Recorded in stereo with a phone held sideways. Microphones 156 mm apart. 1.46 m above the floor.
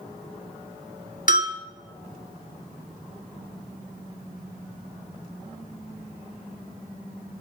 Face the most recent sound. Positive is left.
turn(degrees=55)  # may be behind; listen again after turning